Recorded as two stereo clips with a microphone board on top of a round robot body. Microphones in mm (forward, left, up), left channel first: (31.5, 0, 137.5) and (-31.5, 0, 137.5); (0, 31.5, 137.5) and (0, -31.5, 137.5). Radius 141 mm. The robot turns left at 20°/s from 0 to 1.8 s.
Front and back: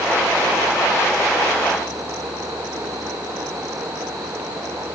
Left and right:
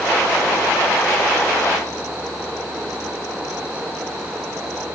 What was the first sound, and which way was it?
Only background noise.